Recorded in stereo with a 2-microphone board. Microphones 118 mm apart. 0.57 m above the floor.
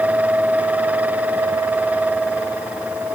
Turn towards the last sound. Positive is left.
No sound to turn to.